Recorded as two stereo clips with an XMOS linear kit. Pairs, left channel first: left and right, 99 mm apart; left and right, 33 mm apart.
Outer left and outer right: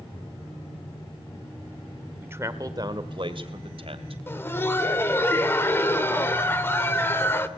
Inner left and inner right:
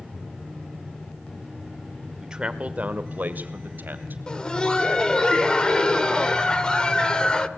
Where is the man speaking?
20° right (ahead or behind), 1.5 m; by 4.2 s 65° right (ahead or behind), 3 m.